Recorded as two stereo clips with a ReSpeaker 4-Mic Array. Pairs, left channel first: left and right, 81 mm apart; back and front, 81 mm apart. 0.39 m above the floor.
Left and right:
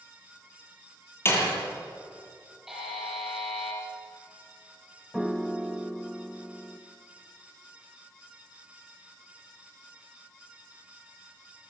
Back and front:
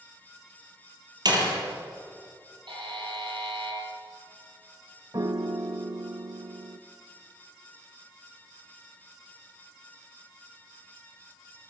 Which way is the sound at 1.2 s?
30° left.